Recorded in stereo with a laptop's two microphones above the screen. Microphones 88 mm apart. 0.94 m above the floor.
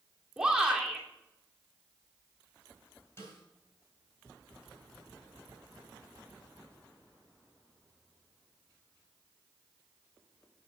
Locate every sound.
0.4 s a shout: 10° right (ahead or behind), 2.5 m
3.2 s a snare drum: 30° left (ahead or behind), 4 m